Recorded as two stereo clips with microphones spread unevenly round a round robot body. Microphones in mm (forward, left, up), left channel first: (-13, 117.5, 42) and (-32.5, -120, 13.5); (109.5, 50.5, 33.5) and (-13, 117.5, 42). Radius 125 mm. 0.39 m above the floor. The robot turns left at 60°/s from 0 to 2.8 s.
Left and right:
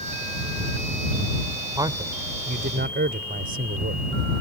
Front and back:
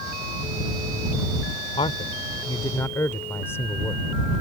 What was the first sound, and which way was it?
A man speaking, 30° right.